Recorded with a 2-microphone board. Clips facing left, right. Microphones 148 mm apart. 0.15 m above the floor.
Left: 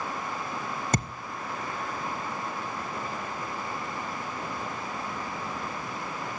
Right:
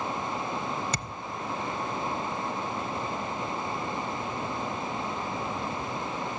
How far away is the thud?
About 1.0 m.